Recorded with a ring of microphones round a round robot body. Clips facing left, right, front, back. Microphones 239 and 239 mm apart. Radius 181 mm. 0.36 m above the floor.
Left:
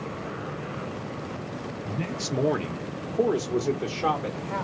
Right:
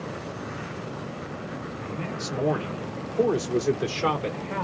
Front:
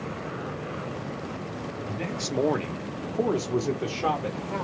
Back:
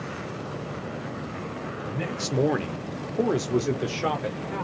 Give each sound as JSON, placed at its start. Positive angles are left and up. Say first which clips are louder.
{"t": 1.9, "sound": "a man speaking", "louder": "left 2 dB, back 2 dB", "azimuth_deg": 95, "distance_m": 1.1}